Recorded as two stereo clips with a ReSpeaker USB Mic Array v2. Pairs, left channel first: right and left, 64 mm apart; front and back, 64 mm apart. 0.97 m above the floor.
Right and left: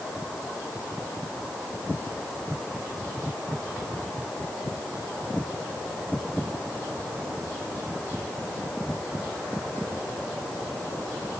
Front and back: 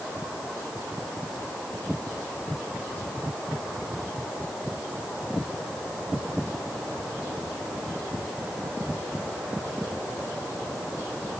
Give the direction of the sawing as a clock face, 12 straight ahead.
I don't hear sawing.